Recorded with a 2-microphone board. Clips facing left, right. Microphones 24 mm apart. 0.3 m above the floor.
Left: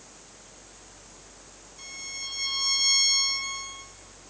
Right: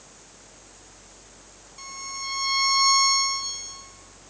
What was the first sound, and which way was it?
A violin, 35° right (ahead or behind).